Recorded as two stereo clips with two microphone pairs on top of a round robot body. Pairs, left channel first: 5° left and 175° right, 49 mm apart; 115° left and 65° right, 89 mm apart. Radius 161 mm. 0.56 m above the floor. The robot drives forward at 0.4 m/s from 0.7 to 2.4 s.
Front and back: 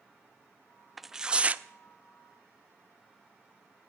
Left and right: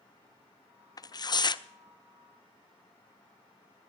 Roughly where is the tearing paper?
Left.